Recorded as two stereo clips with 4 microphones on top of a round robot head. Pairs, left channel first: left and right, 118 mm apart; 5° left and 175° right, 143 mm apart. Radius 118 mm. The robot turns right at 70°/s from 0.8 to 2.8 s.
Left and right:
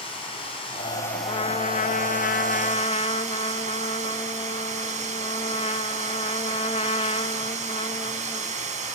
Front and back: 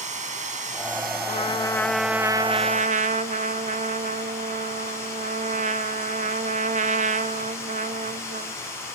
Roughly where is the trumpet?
Ahead left.